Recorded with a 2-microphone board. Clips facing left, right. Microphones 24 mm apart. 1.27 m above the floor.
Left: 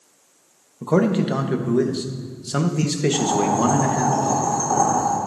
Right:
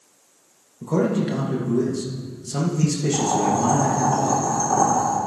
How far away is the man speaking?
About 1.2 m.